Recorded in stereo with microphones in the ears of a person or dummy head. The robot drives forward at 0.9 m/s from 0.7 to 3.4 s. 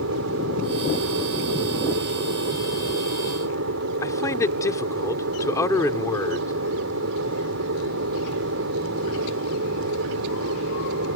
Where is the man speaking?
15° left (ahead or behind).